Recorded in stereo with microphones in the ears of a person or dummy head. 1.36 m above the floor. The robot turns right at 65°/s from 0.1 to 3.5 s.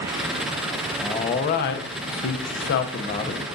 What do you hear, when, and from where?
1.0 s a man speaking: 10° left, 0.8 m; by 3.4 s 165° left, 0.8 m